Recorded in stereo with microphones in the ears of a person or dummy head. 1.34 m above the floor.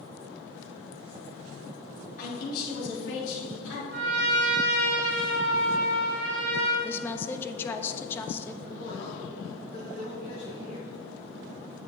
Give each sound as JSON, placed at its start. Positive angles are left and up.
{"t": 2.2, "sound": "a man speaking", "side_deg": 50, "distance_m": 2.5}
{"t": 3.9, "sound": "a trumpet", "side_deg": -80, "distance_m": 2.0}
{"t": 6.8, "sound": "a woman speaking", "side_deg": 15, "distance_m": 0.5}
{"t": 8.6, "sound": "a man speaking", "side_deg": 40, "distance_m": 1.6}